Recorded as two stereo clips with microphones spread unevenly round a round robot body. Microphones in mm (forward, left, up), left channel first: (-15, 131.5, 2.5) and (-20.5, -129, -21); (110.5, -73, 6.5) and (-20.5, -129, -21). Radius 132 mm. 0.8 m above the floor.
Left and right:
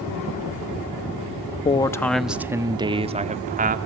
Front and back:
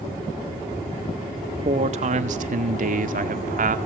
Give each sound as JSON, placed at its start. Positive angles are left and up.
{"t": 1.6, "sound": "a man speaking", "azimuth_deg": 160, "distance_m": 0.9}